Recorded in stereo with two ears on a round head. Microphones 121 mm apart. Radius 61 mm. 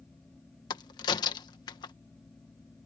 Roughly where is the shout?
No shout in this recording.